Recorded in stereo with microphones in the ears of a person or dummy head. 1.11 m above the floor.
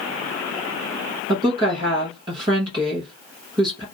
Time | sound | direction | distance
1.3 | a woman speaking | 25° right (ahead or behind) | 0.8 m